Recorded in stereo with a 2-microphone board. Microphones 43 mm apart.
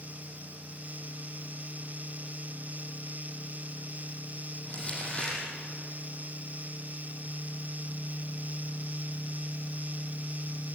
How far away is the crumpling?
About 7.5 m.